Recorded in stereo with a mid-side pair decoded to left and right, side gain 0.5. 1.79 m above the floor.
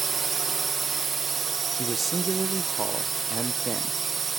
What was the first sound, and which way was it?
A drone, 35° right.